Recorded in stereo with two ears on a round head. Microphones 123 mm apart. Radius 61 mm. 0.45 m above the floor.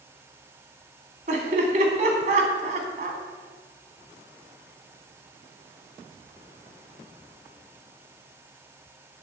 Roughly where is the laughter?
Right.